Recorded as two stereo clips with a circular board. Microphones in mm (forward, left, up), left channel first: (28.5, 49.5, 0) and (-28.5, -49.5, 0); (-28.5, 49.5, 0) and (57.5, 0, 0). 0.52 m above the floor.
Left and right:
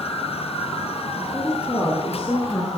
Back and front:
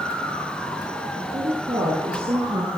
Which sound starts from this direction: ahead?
A woman speaking, at 1.2 s.